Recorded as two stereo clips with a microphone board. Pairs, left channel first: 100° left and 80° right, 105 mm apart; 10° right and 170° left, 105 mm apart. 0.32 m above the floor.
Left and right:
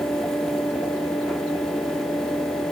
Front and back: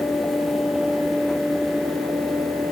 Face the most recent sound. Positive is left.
No sound to turn to.